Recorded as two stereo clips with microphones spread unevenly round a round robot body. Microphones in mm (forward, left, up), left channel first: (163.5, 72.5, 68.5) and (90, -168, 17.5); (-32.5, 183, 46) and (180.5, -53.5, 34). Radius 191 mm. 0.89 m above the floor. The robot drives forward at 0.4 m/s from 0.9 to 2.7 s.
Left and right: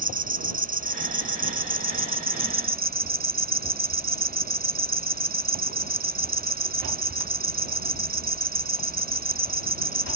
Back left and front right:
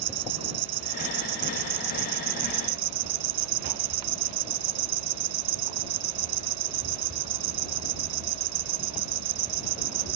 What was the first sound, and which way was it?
An insect, 50° right.